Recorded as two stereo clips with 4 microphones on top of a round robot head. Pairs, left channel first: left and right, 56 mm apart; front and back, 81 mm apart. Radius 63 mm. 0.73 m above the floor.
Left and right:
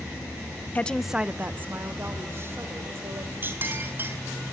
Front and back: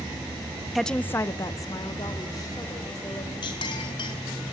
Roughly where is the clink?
Ahead right.